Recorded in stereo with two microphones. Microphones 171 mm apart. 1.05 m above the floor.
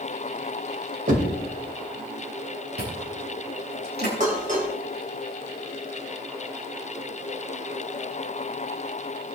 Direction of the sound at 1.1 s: 50° right (ahead or behind).